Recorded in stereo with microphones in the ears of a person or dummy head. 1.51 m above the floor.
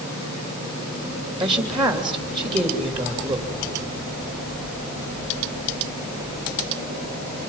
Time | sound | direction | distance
1.4 | a woman speaking | 25° right (ahead or behind) | 3 m